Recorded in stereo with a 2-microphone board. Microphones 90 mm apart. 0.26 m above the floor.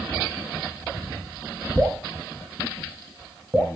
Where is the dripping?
15° right (ahead or behind), 0.8 m.